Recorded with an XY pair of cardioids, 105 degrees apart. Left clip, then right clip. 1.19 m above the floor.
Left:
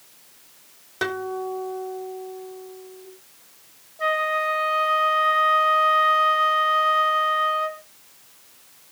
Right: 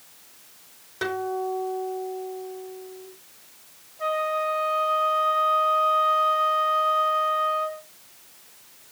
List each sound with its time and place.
1.0 s a guitar: 40° left, 3.5 m
4.0 s a flute: 55° left, 2 m